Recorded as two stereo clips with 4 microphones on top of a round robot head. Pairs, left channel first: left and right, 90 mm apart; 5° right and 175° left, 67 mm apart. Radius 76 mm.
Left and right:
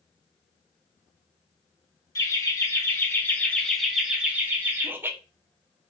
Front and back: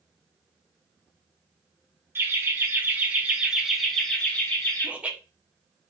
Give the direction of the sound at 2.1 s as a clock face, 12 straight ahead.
8 o'clock.